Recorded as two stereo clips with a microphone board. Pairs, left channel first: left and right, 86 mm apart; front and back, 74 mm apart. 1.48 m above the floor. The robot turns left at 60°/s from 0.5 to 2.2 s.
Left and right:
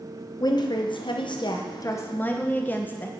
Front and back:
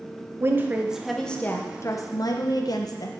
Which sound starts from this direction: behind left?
A woman speaking, at 0.4 s.